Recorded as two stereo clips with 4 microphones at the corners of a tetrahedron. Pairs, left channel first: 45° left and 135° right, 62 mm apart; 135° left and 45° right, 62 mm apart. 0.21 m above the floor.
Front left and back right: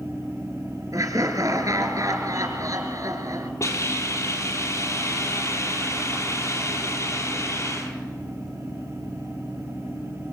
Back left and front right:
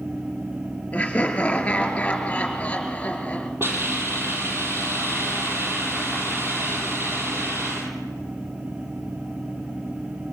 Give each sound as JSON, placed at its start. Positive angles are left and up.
{"t": 0.9, "sound": "laughter", "azimuth_deg": -150, "distance_m": 3.5}
{"t": 3.6, "sound": "a hiss", "azimuth_deg": 5, "distance_m": 4.5}